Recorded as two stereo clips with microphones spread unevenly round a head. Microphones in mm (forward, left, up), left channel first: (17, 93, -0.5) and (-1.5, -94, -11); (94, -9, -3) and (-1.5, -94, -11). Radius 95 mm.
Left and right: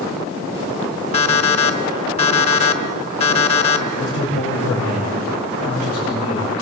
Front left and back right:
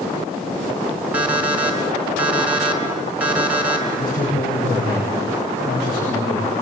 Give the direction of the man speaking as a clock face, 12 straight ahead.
10 o'clock.